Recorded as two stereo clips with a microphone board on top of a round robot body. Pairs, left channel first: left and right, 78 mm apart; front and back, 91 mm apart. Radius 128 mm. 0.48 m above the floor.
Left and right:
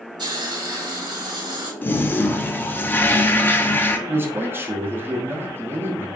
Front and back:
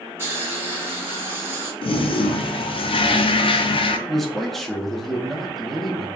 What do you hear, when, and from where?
0.2 s a hiss: 120° right, 2 m
1.8 s a toilet flushing: 25° left, 0.6 m
4.1 s a man speaking: 85° right, 1.1 m